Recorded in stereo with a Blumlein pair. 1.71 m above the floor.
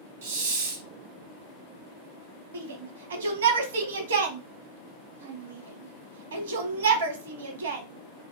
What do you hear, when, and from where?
0.2 s a hiss: 60° right, 0.9 m
2.5 s a shout: 60° right, 1.0 m